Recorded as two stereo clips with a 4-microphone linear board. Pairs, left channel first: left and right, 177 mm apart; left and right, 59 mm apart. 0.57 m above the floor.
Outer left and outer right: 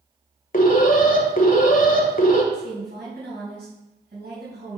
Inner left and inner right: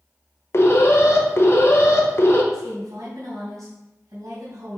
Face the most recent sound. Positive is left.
turn(degrees=-70)  # may be behind; listen again after turning